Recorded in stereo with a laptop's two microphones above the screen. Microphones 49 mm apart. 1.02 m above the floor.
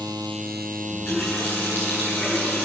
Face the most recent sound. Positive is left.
turn(degrees=40)  # may be behind; listen again after turning